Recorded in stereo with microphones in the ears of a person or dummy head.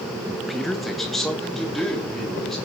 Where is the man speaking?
Centre (ahead or behind), 0.8 m; by 2.5 s 5° left (ahead or behind), 4 m.